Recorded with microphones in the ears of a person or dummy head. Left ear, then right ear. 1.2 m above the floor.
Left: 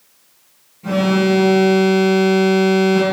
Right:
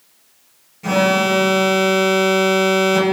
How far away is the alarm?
About 1.5 m.